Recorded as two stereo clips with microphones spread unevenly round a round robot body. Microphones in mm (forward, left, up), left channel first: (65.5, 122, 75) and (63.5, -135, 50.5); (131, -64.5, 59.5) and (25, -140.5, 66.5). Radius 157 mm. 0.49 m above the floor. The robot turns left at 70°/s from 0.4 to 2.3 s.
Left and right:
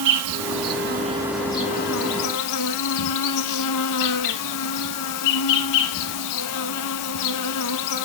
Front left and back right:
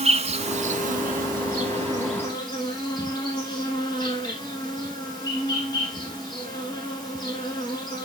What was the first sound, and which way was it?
An insect, 115° right.